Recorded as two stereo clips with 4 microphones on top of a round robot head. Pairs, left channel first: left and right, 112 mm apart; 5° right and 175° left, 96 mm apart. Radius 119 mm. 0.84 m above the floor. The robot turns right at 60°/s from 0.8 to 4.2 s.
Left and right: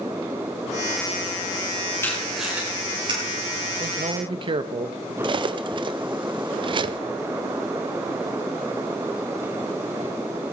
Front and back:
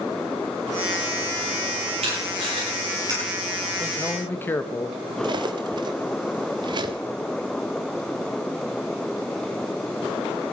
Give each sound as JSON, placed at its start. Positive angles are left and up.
{"t": 2.0, "sound": "tape being pulled", "azimuth_deg": 160, "distance_m": 8.0}
{"t": 3.8, "sound": "a man speaking", "azimuth_deg": -90, "distance_m": 1.3}
{"t": 5.2, "sound": "cutlery clinking", "azimuth_deg": -135, "distance_m": 0.8}